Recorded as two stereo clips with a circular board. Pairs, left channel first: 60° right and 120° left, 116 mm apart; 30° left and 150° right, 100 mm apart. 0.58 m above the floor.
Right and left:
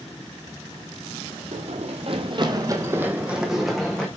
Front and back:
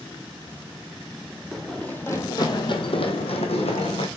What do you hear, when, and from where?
1.5 s running footsteps: 115° left, 1.7 m; by 4.1 s 25° left, 2.5 m